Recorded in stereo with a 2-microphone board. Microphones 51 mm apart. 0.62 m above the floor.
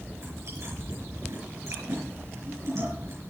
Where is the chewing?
65° right (ahead or behind), 5 m.